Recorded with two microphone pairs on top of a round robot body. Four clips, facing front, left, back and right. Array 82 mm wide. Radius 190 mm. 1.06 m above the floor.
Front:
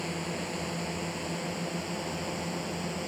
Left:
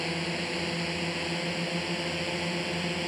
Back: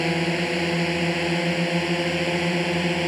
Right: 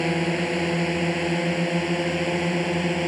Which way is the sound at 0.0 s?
135° right.